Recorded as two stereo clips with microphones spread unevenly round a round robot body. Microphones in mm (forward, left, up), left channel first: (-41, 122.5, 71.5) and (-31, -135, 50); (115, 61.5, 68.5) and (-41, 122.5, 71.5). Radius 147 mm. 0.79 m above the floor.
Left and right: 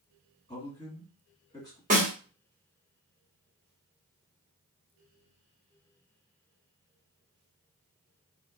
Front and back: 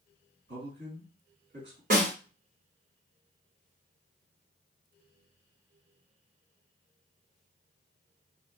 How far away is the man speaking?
About 2 m.